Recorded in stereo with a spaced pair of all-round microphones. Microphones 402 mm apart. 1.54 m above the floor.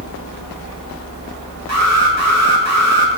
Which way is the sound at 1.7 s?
40° right (ahead or behind).